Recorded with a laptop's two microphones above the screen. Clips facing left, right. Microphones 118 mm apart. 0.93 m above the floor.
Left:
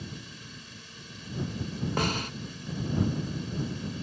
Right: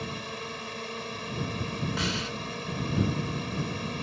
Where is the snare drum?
45° left (ahead or behind).